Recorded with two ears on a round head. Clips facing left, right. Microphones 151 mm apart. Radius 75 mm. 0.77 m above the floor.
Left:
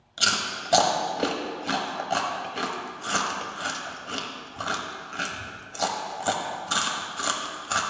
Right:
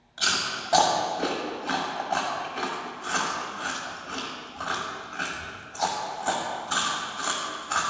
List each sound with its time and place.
0.2 s chewing: 40° left (ahead or behind), 1.1 m